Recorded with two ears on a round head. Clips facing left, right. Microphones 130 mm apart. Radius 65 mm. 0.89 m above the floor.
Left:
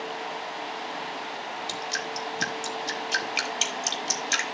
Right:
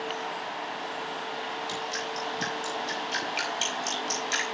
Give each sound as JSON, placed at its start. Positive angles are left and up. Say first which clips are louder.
{"t": 1.7, "sound": "dripping", "louder": "even", "side_deg": 65, "distance_m": 3.5}